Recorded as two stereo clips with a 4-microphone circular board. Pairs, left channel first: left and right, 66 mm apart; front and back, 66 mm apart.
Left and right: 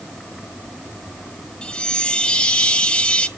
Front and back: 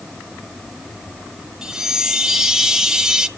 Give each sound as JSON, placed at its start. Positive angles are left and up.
{"t": 1.6, "sound": "a chime", "azimuth_deg": 125, "distance_m": 1.1}